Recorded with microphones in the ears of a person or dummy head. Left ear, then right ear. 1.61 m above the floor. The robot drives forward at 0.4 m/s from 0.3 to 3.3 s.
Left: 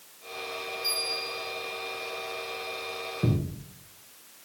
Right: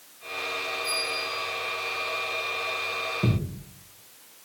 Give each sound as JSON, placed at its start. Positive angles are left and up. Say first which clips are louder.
{"t": 0.8, "sound": "a bell", "louder": "left 2 dB", "side_deg": 70, "distance_m": 5.5}
{"t": 3.2, "sound": "a thud", "louder": "right 1 dB", "side_deg": 5, "distance_m": 1.6}